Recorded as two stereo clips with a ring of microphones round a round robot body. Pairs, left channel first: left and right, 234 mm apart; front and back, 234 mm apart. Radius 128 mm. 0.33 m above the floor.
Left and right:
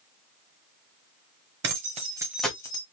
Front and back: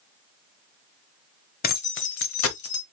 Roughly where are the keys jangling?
Ahead right.